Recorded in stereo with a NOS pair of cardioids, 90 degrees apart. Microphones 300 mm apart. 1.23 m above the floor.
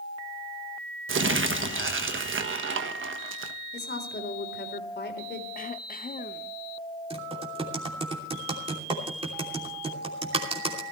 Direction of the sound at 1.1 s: 40° right.